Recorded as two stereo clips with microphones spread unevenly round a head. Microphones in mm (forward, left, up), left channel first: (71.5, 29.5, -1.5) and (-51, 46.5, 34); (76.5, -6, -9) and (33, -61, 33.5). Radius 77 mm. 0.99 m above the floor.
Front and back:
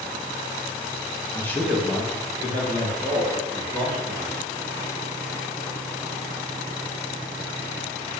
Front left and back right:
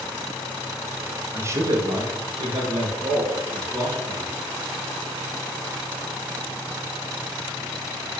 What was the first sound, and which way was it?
A man speaking, 40° right.